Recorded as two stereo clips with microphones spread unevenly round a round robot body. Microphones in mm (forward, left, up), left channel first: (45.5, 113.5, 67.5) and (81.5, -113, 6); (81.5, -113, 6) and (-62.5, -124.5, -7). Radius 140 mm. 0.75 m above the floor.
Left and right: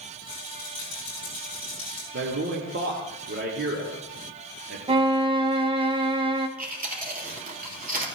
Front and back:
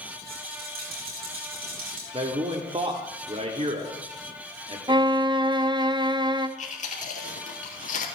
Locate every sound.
0.3 s a rattle: 165° right, 4 m
2.1 s a man speaking: 125° right, 1.6 m
4.9 s a violin: 130° right, 0.9 m
6.6 s chewing: 25° right, 3 m